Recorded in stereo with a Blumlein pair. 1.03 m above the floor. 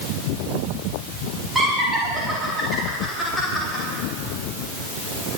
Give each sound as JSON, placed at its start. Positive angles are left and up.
{"t": 1.6, "sound": "laughter", "azimuth_deg": -10, "distance_m": 4.5}